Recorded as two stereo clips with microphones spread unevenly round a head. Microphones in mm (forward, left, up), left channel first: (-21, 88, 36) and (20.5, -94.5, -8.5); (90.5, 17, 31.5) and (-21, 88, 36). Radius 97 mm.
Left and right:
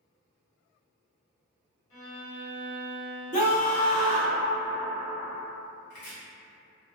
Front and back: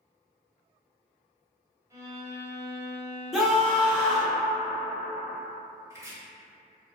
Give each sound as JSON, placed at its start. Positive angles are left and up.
{"t": 1.9, "sound": "a violin", "azimuth_deg": 80, "distance_m": 1.2}
{"t": 3.3, "sound": "a scream", "azimuth_deg": 60, "distance_m": 0.8}
{"t": 5.9, "sound": "chopping", "azimuth_deg": 80, "distance_m": 0.9}